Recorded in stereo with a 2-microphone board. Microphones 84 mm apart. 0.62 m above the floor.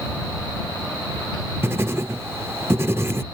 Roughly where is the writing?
Right.